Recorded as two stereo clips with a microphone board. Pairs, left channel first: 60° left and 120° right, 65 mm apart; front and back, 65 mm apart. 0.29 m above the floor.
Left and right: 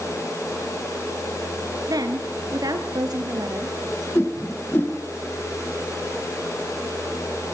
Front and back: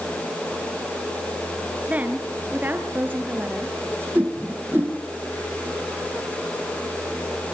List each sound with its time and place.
1.9 s a woman speaking: 115° right, 4 m; by 4.0 s 125° right, 6 m
4.2 s a whoosh: 120° left, 4.5 m